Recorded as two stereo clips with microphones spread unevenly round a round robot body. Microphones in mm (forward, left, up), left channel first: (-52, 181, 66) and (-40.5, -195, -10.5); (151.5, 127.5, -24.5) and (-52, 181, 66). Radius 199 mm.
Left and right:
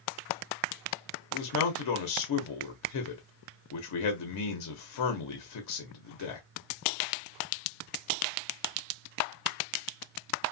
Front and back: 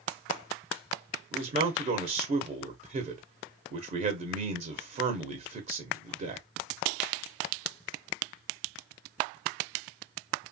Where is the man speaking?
95° left, 0.8 m.